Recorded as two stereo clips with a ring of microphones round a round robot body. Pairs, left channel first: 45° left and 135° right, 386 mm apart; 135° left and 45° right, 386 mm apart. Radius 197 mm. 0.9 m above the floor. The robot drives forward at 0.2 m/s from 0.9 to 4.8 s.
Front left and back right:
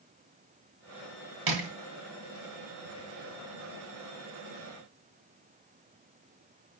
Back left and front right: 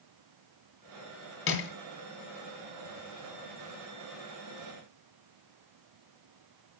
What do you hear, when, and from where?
1.5 s crushing: 165° right, 3 m